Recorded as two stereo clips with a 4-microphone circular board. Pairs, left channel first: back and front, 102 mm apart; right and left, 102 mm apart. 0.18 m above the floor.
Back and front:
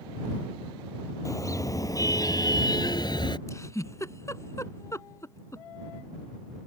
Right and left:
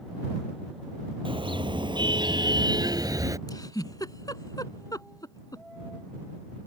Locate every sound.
1.2 s a car horn: 125° left; by 3.4 s 145° left
3.5 s a giggle: 130° right